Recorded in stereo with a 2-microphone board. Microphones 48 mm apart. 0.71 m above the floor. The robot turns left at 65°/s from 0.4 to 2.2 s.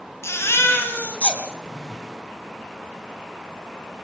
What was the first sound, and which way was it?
A baby crying, 80° left.